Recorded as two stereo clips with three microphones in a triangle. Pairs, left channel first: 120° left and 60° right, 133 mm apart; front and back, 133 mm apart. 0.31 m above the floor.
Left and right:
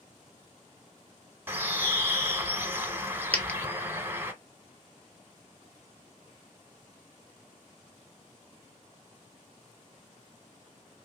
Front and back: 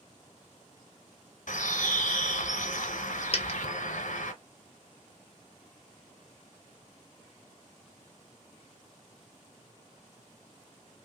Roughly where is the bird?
Ahead.